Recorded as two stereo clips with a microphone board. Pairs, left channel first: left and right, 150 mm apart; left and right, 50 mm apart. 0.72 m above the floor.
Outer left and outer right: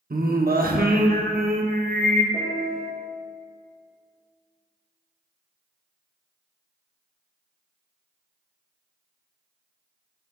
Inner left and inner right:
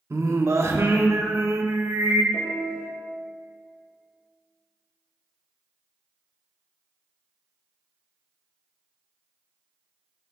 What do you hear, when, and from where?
0.1 s singing: 70° right (ahead or behind), 0.9 m
2.3 s a piano: 10° right (ahead or behind), 3.5 m